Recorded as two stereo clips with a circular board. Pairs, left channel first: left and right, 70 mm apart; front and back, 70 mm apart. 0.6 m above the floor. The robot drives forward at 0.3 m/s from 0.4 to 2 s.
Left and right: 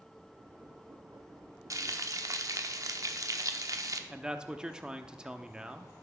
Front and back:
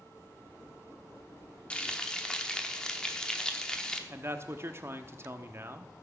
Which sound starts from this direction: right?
Frying, at 1.7 s.